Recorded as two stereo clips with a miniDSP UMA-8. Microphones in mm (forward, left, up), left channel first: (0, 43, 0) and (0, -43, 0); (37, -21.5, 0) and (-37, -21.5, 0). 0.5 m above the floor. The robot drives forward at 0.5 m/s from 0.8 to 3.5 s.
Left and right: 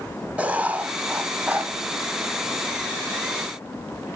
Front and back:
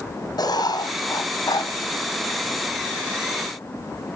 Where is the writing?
10° right, 3.5 m; by 1.7 s 15° right, 3 m.